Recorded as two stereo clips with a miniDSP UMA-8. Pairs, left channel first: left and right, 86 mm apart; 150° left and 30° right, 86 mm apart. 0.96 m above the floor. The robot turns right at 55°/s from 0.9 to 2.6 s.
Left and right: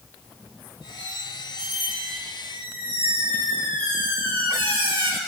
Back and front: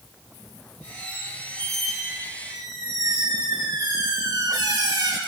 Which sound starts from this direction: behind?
A squeak, at 1.0 s.